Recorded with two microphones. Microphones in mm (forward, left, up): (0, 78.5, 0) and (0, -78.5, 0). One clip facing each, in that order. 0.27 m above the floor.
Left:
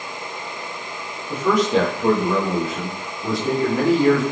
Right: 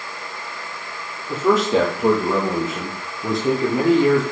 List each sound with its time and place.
1.3 s a man speaking: 25° right (ahead or behind), 7.5 m; by 4.2 s 20° right (ahead or behind), 6 m